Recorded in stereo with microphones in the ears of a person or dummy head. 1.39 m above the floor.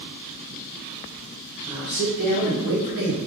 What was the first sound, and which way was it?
A man speaking, 10° right (ahead or behind).